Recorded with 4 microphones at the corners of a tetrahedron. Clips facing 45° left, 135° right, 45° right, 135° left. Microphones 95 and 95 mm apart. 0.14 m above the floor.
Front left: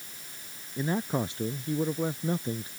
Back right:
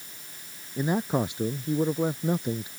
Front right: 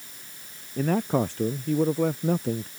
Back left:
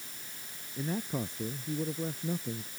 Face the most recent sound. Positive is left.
turn(degrees=-60)